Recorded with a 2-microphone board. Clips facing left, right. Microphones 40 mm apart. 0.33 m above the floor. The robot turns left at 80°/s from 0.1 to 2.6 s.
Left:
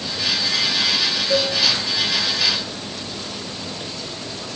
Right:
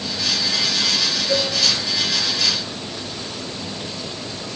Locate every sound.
1.3 s a cowbell: 35° right (ahead or behind), 8 m; by 1.5 s 50° right (ahead or behind), 8 m